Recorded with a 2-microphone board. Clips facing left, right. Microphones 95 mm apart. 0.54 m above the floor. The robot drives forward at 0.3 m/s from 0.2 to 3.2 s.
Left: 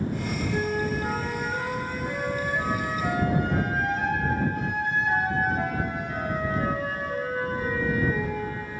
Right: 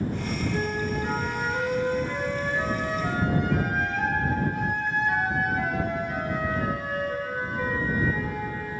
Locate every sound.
0.5 s a flute: 55° left (ahead or behind), 2.5 m; by 8.6 s 40° left (ahead or behind), 3 m